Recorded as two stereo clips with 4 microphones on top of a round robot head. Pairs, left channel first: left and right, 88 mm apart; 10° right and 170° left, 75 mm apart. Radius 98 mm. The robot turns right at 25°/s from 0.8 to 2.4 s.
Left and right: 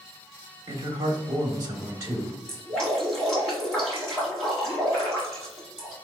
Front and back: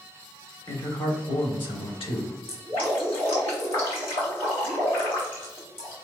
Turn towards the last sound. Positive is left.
turn(degrees=5)